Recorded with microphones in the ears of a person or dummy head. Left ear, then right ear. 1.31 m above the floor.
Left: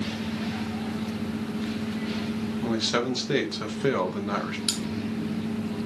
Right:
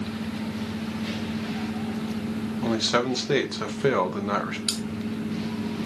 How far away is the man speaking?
About 0.9 m.